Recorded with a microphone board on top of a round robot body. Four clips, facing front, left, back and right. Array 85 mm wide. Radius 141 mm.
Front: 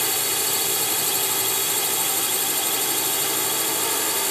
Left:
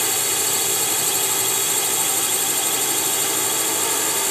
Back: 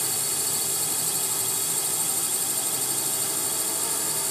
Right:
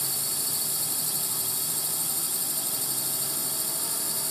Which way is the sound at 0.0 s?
55° left.